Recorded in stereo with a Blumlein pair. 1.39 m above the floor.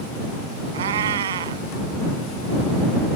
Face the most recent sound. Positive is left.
turn(degrees=-60)